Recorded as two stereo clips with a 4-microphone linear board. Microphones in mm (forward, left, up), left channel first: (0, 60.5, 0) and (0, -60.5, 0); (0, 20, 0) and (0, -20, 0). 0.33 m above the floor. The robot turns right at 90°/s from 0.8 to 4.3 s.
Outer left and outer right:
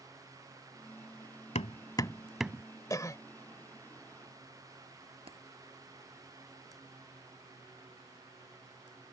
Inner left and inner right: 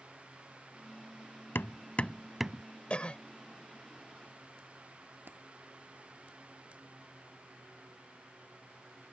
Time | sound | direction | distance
1.6 | hammering | 70° left (ahead or behind) | ?
2.9 | a cough | 30° left (ahead or behind) | ?
5.3 | a dropped coin | 55° right (ahead or behind) | ?